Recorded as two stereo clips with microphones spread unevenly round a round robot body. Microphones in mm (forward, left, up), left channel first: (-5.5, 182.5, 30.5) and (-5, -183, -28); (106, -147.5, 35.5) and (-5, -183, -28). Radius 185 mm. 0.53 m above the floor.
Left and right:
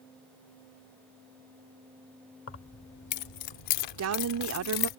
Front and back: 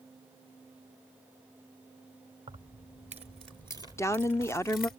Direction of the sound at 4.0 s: 75° right.